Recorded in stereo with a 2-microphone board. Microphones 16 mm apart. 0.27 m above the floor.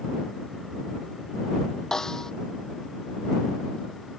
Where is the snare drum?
35° left (ahead or behind).